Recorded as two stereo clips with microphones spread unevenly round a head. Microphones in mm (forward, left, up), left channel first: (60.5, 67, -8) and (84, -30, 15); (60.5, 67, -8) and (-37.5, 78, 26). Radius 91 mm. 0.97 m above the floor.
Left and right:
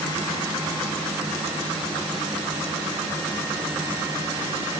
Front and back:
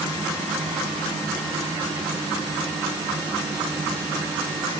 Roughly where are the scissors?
I don't hear scissors.